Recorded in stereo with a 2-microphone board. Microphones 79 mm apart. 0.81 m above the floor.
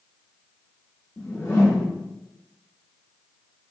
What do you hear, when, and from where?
1.2 s a whoosh: 30° left (ahead or behind), 1.4 m